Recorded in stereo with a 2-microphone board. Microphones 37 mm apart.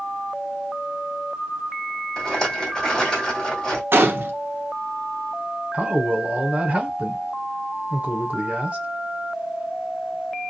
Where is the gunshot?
80° right, 0.7 m.